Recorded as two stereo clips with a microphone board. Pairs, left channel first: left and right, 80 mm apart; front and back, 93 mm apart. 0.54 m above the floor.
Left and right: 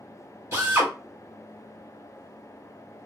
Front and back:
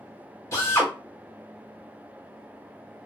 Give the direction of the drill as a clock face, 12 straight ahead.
2 o'clock.